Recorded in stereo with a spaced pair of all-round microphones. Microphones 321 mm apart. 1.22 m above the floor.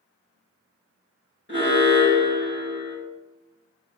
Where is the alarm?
35° left (ahead or behind), 4.5 m.